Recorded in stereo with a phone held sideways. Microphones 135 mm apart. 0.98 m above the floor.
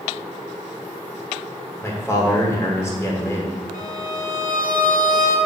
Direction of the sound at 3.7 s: 80° left.